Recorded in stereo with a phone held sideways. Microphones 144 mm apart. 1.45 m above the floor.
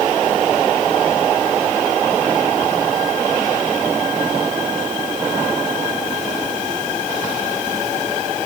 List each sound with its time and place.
Only background noise.